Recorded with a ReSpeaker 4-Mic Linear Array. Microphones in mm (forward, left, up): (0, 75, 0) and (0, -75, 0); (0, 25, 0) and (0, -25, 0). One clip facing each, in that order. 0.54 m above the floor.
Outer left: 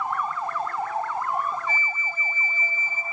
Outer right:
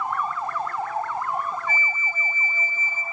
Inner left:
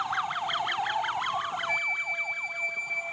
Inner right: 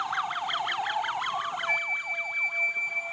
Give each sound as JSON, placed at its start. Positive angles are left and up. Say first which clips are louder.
{"t": 1.7, "sound": "a flute", "louder": "outer right 1 dB, inner right 1 dB", "side_deg": -50, "distance_m": 0.5}